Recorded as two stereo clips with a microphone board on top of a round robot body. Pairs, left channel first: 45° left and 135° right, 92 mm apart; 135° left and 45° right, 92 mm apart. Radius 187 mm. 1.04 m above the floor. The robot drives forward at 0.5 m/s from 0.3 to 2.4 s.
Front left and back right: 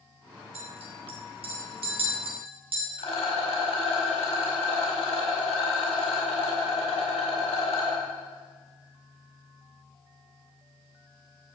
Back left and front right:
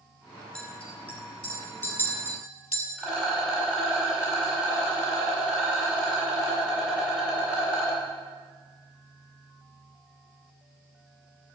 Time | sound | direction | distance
0.6 | a clink | 145° right | 1.9 m
3.0 | a rattle | 35° left | 5 m